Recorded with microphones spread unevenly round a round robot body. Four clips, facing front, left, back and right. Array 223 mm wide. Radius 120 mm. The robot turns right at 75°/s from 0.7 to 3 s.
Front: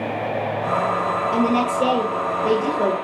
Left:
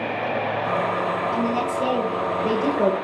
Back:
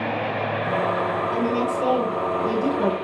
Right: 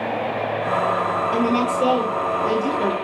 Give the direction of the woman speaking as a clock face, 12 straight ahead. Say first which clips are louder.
Right 3 dB, front 3 dB; 1 o'clock.